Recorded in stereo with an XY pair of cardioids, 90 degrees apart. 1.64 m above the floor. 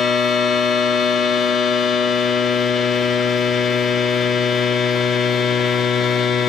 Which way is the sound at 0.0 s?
70° left.